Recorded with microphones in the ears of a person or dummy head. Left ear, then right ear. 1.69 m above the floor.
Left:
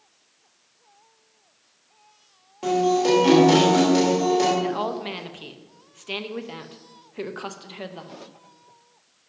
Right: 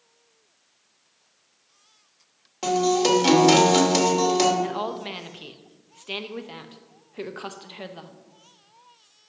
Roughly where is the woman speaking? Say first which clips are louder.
Left 2 dB; centre.